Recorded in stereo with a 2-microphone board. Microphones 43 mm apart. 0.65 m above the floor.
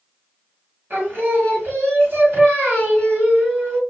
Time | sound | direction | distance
0.9 | singing | 50° right (ahead or behind) | 1.7 m